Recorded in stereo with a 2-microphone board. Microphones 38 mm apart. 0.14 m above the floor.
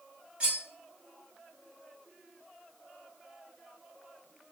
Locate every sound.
0.4 s cutlery clinking: 35° right (ahead or behind), 1.2 m